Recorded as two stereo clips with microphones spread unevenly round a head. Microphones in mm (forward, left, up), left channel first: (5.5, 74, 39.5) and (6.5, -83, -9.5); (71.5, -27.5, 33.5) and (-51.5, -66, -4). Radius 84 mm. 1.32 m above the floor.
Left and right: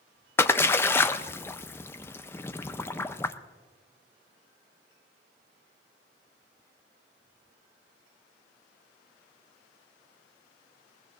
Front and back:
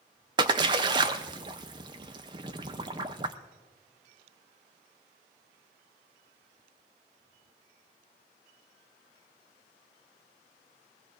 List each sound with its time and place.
0.4 s a splash: 130° left, 0.5 m